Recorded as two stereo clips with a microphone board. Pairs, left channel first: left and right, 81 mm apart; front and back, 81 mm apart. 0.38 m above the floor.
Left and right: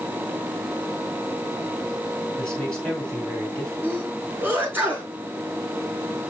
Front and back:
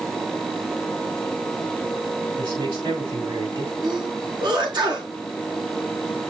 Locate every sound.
2.4 s a man speaking: 170° left, 4.5 m
3.8 s a sneeze: 155° right, 4.5 m